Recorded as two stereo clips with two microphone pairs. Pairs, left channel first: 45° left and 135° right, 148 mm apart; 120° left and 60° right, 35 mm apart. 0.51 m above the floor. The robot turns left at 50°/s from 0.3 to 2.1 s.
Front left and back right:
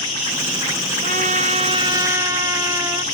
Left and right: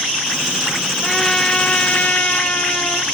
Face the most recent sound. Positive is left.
turn(degrees=155)